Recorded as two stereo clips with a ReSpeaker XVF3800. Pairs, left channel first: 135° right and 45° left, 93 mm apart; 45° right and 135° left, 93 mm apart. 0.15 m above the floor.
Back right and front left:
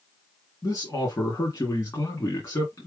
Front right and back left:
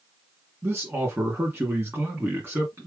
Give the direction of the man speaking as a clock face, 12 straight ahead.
6 o'clock.